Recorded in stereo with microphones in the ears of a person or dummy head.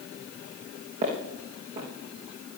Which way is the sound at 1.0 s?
40° right (ahead or behind).